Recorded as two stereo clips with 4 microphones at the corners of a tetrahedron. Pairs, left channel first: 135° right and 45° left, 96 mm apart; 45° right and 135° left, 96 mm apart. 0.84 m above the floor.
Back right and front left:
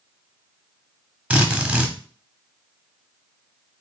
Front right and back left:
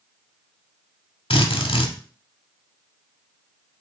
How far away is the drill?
About 0.9 m.